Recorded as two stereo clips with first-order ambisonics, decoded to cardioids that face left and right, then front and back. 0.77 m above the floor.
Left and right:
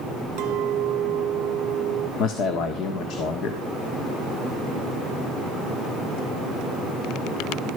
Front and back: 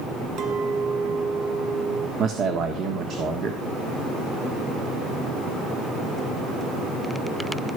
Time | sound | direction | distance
0.4 | a clink | 125° right | 1.7 m
2.2 | a man speaking | 130° left | 1.5 m